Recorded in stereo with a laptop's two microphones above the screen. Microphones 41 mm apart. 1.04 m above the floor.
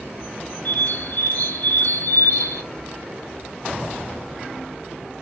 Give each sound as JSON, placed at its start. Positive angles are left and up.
{"t": 0.7, "sound": "a bird", "side_deg": 45, "distance_m": 1.0}